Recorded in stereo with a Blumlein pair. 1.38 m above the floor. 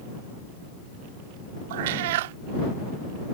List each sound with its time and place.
1.7 s a cat meowing: 55° right